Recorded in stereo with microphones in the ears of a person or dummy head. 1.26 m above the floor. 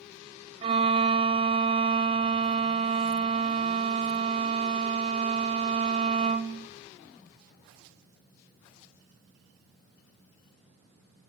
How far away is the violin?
About 0.5 m.